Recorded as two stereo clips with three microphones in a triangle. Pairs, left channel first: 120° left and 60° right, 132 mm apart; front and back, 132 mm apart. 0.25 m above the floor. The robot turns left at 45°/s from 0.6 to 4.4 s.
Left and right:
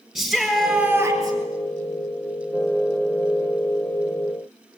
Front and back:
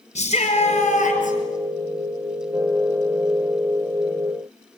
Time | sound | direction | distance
0.1 | a shout | 30° left | 5.5 m